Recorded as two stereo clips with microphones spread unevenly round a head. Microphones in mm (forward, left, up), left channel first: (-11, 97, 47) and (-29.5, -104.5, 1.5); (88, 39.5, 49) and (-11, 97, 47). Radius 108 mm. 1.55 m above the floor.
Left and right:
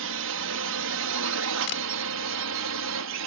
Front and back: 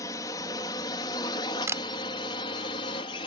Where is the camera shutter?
85° left.